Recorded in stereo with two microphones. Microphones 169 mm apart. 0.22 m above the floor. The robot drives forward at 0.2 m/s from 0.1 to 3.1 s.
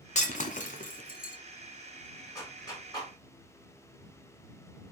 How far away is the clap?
About 2 m.